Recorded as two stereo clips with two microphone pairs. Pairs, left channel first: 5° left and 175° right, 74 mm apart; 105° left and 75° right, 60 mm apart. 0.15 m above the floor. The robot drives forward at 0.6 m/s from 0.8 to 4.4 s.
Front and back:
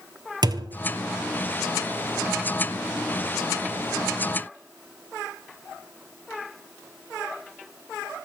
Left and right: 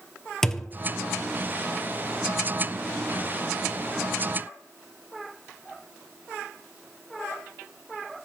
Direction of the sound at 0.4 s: 175° right.